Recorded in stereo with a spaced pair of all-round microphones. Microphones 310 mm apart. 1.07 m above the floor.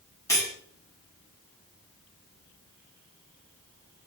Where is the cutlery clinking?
10° left (ahead or behind), 1.3 m.